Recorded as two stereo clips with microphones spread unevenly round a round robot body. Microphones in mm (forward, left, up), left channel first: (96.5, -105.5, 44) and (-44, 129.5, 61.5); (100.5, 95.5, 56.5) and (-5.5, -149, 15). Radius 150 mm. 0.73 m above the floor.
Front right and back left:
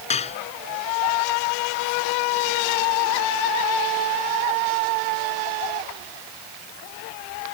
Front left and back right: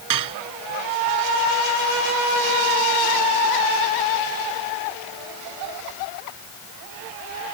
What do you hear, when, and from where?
0.1 s dishes clattering: 130° right